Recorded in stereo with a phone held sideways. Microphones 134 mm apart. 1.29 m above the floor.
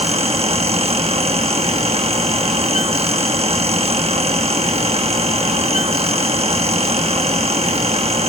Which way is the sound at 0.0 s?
50° right (ahead or behind).